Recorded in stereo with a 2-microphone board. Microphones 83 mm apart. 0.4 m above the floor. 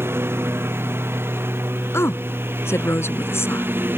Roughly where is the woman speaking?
Left.